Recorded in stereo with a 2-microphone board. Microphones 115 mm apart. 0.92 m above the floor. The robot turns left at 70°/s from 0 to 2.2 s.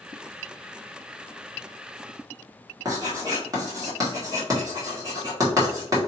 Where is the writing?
30° right (ahead or behind), 1.8 m.